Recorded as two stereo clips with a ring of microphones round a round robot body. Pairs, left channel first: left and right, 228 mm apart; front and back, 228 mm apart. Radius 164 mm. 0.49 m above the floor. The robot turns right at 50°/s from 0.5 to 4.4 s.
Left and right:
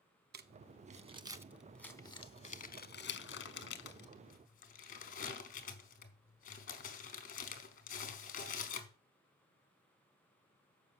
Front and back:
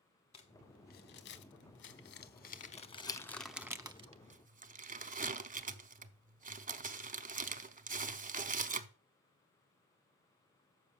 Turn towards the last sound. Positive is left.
turn(degrees=135)